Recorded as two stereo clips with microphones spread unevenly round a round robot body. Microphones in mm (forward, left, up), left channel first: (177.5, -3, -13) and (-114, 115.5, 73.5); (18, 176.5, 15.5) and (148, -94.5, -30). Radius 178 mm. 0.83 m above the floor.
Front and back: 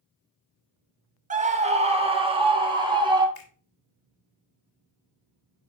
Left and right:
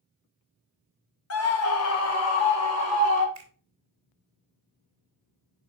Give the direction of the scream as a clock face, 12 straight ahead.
9 o'clock.